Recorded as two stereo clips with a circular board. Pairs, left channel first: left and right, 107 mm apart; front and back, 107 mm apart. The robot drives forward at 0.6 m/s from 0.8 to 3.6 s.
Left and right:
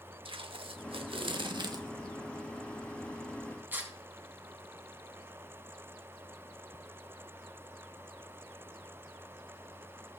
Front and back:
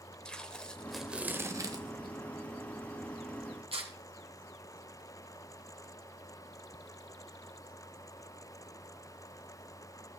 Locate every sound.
0.2 s tape being pulled: 80° right, 0.6 m; by 3.9 s 160° right, 1.7 m